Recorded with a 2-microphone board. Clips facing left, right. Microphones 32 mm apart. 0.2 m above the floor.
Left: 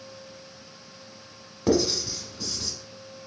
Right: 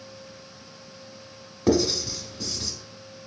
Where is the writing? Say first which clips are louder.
Right 1 dB; centre (ahead or behind), 0.8 m.